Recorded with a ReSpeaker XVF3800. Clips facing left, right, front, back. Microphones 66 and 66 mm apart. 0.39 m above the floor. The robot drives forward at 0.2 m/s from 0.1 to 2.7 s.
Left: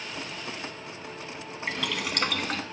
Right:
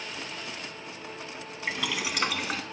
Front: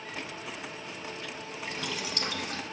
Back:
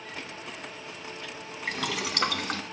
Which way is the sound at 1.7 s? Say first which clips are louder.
Even, back 6 dB; 175° right.